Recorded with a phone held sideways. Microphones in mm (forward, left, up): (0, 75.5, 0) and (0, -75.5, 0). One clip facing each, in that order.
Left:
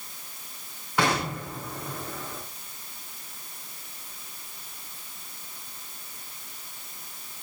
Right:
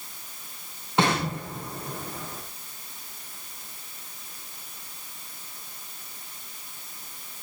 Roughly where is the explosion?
Right.